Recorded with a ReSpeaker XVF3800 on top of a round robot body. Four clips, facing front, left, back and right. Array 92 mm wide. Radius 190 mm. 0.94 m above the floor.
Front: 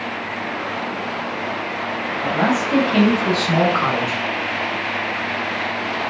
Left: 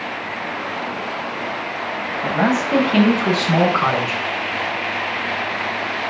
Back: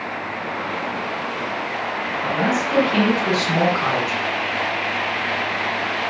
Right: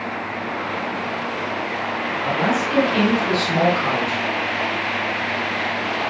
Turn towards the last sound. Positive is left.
turn(degrees=60)